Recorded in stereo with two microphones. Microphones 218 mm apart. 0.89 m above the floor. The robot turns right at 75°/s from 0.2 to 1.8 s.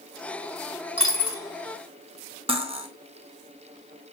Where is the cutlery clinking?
25° right (ahead or behind), 0.5 m.